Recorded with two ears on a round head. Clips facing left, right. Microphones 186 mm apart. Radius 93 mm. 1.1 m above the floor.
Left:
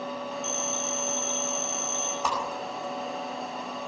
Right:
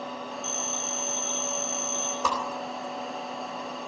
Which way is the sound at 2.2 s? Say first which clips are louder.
Right 1 dB; 75° right (ahead or behind).